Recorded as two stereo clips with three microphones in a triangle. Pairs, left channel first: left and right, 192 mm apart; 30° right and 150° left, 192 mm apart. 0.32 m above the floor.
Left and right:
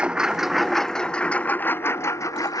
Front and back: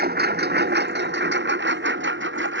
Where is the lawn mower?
175° right; by 2.6 s 160° left.